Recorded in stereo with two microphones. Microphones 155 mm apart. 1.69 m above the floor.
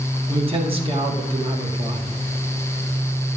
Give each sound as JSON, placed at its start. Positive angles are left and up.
{"t": 0.3, "sound": "a man speaking", "side_deg": -40, "distance_m": 2.0}